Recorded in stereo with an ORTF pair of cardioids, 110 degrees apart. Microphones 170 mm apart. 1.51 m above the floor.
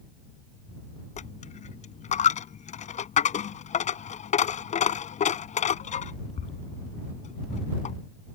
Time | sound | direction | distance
1.2 | a dropped coin | 45° left | ?